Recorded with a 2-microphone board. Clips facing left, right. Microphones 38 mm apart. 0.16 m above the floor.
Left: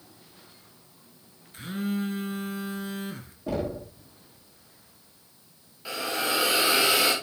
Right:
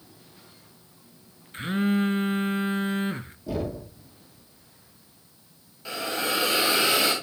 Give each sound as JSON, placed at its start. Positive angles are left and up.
{"t": 1.5, "sound": "a phone buzzing", "side_deg": -40, "distance_m": 0.6}
{"t": 3.5, "sound": "knocking", "side_deg": 50, "distance_m": 5.5}
{"t": 5.8, "sound": "a hiss", "side_deg": 5, "distance_m": 4.0}